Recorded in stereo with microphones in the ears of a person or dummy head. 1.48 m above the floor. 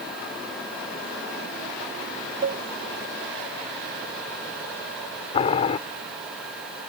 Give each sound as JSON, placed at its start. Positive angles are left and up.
{"t": 2.4, "sound": "a cowbell", "side_deg": -50}
{"t": 5.3, "sound": "boiling", "side_deg": 35}